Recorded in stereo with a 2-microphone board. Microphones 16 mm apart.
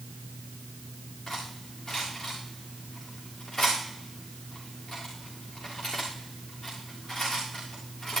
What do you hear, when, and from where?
1.3 s cutlery clinking: 20° left (ahead or behind), 7 m